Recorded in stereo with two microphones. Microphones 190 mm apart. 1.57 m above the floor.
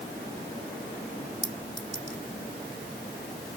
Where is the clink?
80° right.